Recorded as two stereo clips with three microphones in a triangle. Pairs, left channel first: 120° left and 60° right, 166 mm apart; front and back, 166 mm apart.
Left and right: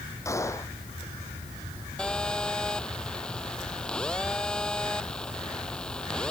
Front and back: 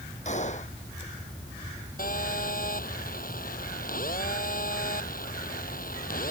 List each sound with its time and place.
0.2 s a gunshot: 45° left
2.0 s a phone buzzing: 35° left